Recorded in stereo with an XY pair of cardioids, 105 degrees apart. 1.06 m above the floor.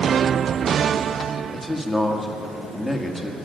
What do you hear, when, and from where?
1.5 s a man speaking: 5° right, 1.8 m